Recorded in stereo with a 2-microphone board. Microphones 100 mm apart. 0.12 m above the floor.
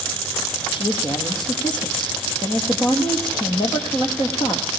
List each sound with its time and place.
0.7 s a man speaking: 50° left (ahead or behind), 3 m